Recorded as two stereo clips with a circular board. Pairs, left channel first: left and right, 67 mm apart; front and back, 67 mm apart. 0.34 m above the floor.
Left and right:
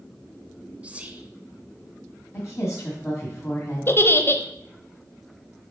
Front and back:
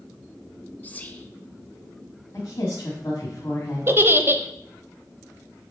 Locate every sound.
0.8 s whispering: 40° right, 0.9 m
2.3 s a woman speaking: 45° left, 2 m
3.9 s a giggle: 135° left, 0.7 m